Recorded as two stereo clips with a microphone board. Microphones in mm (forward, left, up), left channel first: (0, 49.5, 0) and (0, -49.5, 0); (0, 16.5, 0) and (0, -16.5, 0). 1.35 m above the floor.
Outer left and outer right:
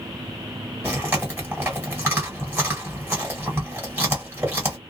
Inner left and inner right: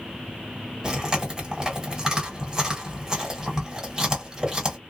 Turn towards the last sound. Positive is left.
turn(degrees=-20)  # may be behind; listen again after turning